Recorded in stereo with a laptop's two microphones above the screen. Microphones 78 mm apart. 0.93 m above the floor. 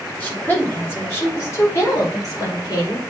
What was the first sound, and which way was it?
A woman speaking, 25° left (ahead or behind).